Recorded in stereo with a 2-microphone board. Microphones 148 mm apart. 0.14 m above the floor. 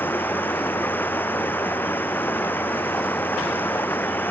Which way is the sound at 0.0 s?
10° left (ahead or behind).